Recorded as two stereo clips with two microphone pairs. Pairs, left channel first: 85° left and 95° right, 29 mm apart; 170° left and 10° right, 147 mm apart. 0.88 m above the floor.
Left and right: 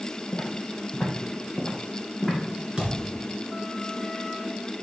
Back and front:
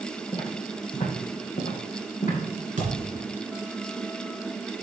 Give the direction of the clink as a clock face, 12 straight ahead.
I don't hear a clink.